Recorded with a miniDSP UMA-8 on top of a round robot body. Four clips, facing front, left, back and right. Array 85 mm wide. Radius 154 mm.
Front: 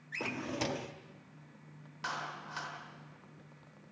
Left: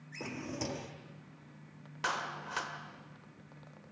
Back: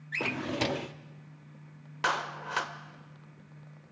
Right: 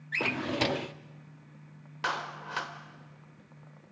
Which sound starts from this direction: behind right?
A drawer, at 0.1 s.